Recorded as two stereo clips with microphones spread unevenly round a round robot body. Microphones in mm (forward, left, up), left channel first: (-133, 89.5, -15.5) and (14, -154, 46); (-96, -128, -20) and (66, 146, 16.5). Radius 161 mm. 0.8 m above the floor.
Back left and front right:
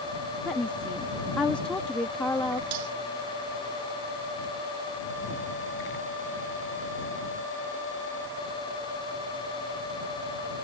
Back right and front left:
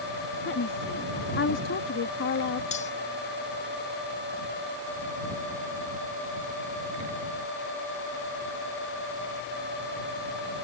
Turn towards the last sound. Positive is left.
turn(degrees=-50)